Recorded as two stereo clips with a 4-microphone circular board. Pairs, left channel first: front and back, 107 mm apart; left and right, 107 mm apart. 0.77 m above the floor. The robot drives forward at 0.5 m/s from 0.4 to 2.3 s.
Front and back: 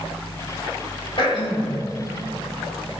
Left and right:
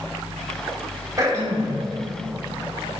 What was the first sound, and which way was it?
Throat clearing, 35° right.